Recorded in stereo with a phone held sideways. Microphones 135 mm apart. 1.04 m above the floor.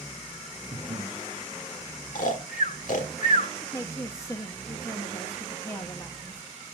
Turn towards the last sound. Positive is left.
turn(degrees=20)  # may be behind; listen again after turning